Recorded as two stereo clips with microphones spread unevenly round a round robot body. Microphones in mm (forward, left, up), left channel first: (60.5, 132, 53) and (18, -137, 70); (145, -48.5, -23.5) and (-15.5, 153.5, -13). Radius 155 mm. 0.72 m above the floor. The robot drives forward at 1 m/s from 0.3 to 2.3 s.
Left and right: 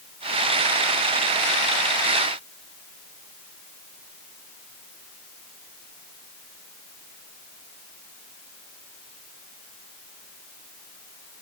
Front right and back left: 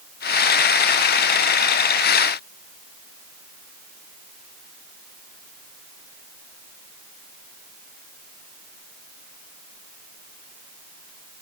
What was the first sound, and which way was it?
Only background noise.